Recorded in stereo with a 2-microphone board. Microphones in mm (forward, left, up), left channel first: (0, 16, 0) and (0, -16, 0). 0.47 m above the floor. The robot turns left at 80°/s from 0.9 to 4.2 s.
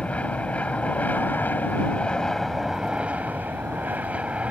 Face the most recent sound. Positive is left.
turn(degrees=-135)